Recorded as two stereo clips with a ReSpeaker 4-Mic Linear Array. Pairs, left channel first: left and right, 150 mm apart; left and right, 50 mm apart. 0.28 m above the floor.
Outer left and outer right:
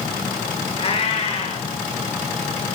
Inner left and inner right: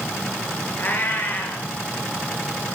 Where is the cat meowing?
40° left (ahead or behind), 2 m.